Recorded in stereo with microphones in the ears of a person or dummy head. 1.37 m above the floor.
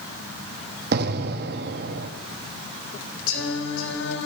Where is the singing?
65° left (ahead or behind), 3 m.